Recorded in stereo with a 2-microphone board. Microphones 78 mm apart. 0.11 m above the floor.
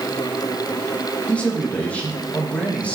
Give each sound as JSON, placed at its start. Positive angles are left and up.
{"t": 1.3, "sound": "a man speaking", "side_deg": 15, "distance_m": 6.0}